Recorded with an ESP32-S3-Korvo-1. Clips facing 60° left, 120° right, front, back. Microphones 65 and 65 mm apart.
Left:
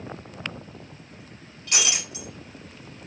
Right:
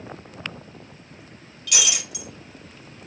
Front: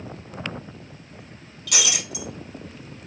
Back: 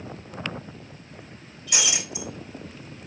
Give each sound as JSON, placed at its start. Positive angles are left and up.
{"t": 1.7, "sound": "breaking glass", "azimuth_deg": 0, "distance_m": 3.0}